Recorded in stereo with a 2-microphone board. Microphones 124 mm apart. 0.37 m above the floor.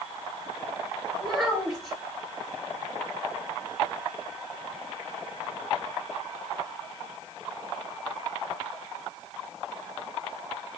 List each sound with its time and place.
1.2 s a child speaking: 5° right (ahead or behind), 3 m